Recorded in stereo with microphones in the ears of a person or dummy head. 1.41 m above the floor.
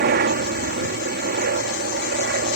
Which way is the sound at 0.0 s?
50° right (ahead or behind).